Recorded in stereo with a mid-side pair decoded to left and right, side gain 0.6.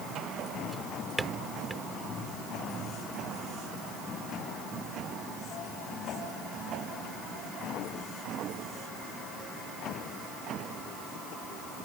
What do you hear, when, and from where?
0.7 s a drawer: 10° right